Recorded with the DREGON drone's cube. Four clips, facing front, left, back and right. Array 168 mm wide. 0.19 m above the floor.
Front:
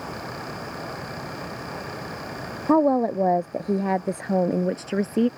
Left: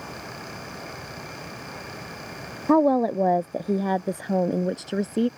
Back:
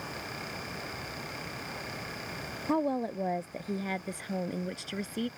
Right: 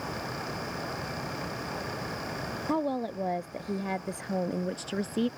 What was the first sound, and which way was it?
A woman speaking, 45° left.